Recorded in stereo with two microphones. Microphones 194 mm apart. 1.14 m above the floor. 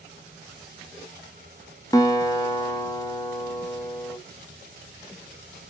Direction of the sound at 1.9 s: 20° left (ahead or behind).